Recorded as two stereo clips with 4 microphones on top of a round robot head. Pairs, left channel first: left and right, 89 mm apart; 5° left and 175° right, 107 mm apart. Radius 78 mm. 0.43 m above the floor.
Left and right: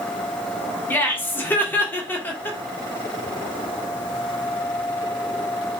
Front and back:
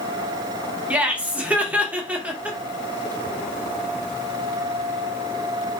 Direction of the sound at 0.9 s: 125° left.